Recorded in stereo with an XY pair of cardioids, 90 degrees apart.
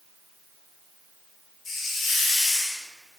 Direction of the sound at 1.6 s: 55° left.